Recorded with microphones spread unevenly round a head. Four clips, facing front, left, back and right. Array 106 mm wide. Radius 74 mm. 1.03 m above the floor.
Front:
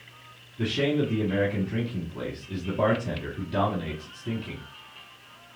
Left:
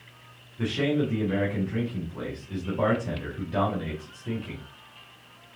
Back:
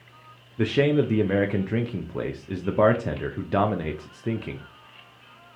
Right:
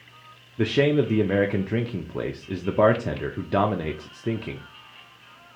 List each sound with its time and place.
0.6 s a man speaking: 110° right, 0.5 m